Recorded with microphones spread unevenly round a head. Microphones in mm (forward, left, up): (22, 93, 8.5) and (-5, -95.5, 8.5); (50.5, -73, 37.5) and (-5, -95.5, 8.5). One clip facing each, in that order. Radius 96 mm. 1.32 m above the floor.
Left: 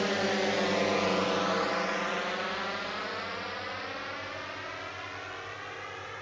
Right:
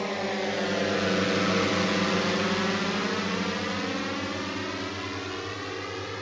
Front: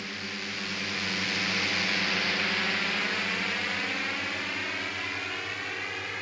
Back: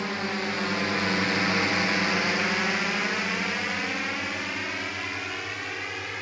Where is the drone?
160° left; by 6.2 s 70° right.